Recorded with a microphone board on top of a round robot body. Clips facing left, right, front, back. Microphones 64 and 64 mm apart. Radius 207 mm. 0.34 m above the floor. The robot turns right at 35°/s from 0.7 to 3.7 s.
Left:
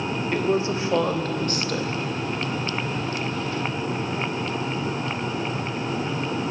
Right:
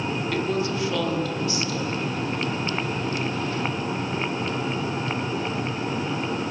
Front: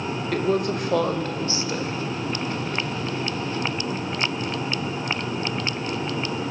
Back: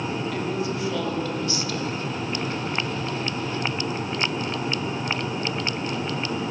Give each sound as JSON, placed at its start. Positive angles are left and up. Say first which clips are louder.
{"t": 0.3, "sound": "a woman speaking", "louder": "left 4 dB, front 4 dB", "azimuth_deg": 25, "distance_m": 2.5}